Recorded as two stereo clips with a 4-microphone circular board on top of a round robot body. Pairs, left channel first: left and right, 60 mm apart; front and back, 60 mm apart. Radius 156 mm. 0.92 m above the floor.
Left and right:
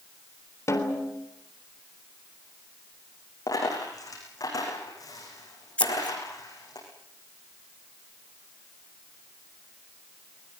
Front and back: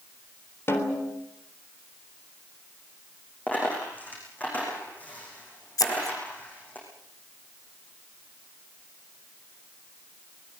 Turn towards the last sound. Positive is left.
turn(degrees=20)